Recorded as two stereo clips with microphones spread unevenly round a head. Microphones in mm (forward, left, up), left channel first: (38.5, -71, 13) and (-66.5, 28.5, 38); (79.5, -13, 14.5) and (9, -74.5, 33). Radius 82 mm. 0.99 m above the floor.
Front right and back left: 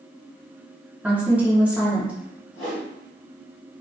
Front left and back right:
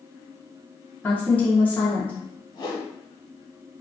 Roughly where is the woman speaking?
Ahead left.